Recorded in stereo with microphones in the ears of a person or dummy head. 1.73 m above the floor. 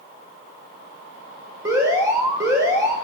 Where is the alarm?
20° right (ahead or behind), 5.5 m.